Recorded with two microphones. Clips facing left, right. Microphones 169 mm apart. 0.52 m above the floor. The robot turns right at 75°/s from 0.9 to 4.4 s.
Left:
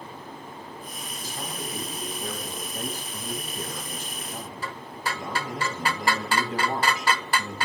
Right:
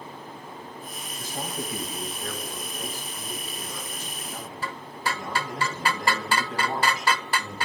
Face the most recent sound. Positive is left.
turn(degrees=175)